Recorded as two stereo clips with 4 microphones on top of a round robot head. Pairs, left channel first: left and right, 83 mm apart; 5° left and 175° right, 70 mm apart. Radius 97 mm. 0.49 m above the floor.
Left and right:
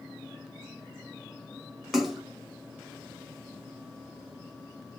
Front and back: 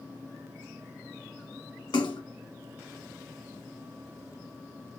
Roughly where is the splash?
Ahead.